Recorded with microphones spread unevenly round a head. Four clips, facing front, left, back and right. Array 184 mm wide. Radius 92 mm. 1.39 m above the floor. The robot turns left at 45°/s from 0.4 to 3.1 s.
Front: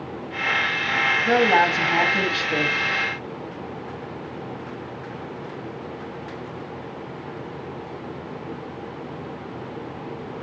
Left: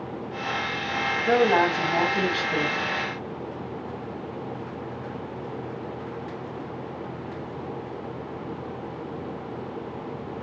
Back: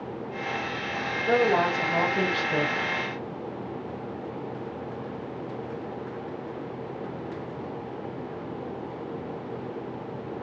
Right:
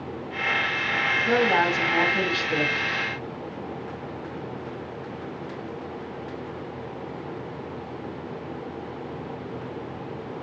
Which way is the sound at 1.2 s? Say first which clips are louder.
Left 2 dB, front 3 dB; 25° left.